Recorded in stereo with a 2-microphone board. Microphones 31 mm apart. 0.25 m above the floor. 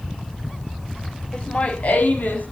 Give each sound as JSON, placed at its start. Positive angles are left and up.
{"t": 1.3, "sound": "laughter", "side_deg": 30, "distance_m": 1.3}